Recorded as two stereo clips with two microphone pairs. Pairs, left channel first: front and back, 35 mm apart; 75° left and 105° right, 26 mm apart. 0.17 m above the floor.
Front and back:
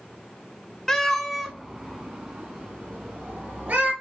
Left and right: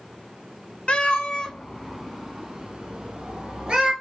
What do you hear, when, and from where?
0.9 s a cat meowing: 65° left, 0.9 m; by 3.9 s 160° right, 1.9 m